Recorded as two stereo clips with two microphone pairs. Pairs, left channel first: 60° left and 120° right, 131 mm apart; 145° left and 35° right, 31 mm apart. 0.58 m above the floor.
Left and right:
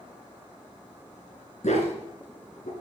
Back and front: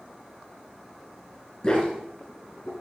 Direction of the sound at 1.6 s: 85° left.